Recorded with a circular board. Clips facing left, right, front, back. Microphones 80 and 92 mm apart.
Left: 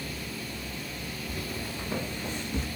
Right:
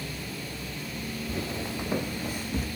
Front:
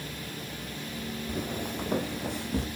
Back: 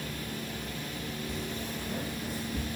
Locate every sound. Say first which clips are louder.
1.3 s footsteps: right 4 dB, front 3 dB; 35° right, 1.8 m; by 2.7 s 5° right, 3 m